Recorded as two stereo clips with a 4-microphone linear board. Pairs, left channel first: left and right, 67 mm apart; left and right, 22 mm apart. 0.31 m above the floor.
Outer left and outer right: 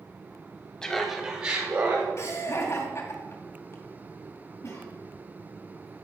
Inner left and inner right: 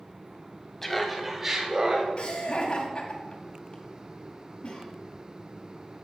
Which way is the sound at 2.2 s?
45° left (ahead or behind).